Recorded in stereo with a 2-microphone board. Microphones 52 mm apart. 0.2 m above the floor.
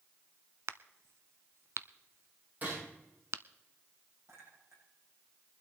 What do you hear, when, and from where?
0.7 s a crack: 55° right (ahead or behind), 0.6 m
2.6 s a gunshot: 40° right (ahead or behind), 9.5 m
4.3 s a clink: 65° right (ahead or behind), 6.5 m